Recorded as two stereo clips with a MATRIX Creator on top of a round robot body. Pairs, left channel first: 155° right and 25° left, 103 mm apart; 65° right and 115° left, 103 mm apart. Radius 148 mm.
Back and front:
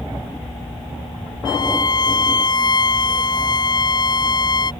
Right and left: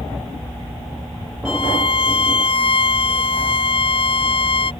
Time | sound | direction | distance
1.4 | a violin | 105° right | ?